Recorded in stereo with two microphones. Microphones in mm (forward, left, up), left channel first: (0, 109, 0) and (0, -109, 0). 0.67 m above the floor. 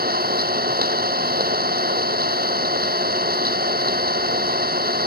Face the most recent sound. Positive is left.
turn(degrees=-45)  # may be behind; listen again after turning